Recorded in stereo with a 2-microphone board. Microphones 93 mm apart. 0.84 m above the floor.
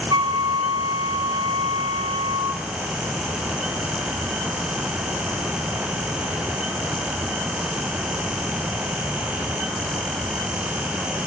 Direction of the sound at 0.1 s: 60° right (ahead or behind).